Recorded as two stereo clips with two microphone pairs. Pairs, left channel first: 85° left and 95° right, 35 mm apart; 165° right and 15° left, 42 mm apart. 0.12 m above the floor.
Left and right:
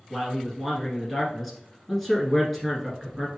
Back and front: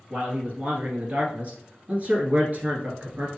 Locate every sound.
0.1 s a man speaking: 5° right, 1.4 m